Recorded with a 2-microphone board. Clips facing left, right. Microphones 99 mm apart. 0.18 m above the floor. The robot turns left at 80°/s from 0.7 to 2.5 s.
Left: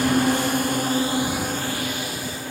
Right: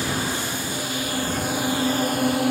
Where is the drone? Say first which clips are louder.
Left 7 dB; 55° left (ahead or behind); by 2.5 s 75° right (ahead or behind).